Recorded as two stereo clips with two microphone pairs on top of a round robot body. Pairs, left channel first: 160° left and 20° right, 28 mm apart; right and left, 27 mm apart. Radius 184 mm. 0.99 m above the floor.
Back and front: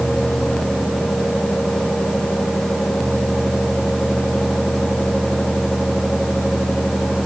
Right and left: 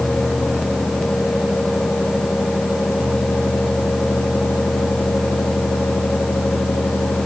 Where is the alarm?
No alarm in this recording.